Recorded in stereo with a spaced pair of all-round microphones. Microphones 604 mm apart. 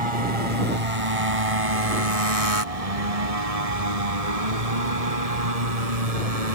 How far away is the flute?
No flute in this recording.